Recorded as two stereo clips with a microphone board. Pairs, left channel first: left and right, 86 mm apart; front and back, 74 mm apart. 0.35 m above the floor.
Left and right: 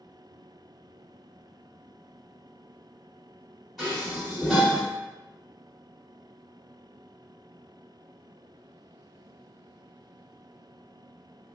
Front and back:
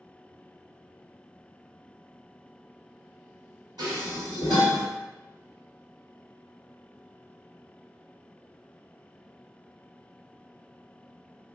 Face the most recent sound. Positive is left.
turn(degrees=180)